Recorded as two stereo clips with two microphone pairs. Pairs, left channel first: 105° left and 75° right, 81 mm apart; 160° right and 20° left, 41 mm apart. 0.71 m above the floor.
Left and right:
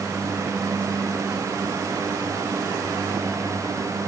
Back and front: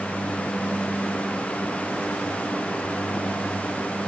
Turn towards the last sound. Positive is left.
No sound to turn to.